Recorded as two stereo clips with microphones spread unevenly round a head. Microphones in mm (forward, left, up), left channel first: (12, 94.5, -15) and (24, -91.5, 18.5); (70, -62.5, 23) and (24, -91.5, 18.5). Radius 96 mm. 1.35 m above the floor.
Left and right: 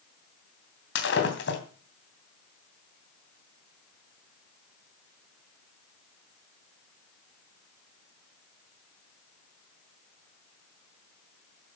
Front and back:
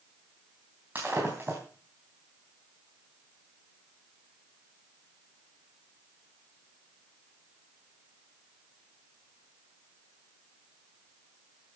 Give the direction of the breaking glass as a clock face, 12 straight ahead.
8 o'clock.